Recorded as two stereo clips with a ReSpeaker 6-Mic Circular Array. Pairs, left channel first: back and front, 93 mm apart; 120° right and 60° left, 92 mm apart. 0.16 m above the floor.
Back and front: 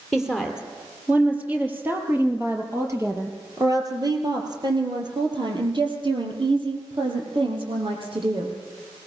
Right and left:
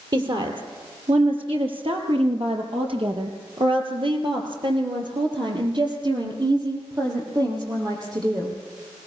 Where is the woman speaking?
85° left, 5 m; by 8.6 s 15° left, 6.5 m.